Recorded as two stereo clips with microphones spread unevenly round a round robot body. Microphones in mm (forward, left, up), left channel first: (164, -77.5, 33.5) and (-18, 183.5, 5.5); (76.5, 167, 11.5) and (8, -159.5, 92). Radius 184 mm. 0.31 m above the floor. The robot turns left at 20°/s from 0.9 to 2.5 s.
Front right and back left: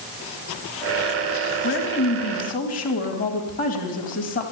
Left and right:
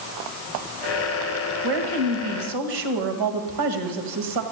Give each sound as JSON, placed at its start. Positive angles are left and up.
{"t": 1.6, "sound": "a woman speaking", "azimuth_deg": -105, "distance_m": 2.0}